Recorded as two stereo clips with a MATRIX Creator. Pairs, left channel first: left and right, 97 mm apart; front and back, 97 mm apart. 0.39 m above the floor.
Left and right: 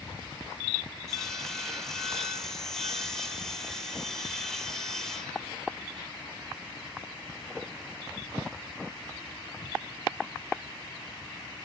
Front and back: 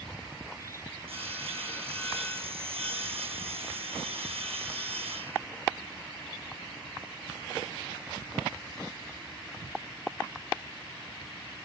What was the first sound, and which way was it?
Sawing, 175° left.